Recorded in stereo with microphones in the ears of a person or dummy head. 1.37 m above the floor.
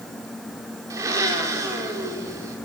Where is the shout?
No shout in this recording.